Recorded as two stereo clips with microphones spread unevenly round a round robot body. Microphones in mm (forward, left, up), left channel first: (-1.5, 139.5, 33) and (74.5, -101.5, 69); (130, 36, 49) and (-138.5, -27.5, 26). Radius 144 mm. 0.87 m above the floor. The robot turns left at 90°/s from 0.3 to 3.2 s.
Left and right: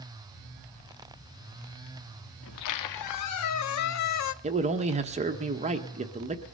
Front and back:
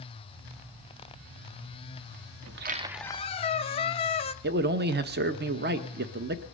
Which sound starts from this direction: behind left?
A squeak, at 2.4 s.